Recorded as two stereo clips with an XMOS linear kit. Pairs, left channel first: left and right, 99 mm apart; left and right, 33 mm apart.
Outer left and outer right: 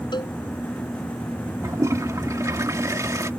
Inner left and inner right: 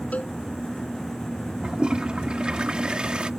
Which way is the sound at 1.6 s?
35° right (ahead or behind).